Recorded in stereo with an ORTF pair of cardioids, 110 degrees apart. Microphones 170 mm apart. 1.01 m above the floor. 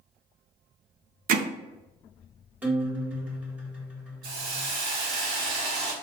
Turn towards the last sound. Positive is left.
turn(degrees=-65)